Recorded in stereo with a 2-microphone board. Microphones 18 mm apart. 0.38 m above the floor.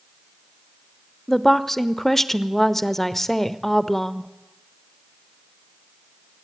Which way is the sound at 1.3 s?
15° left (ahead or behind).